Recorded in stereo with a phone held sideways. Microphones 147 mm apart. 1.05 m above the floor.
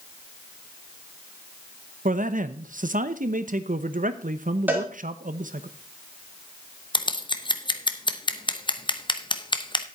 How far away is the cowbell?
About 2 m.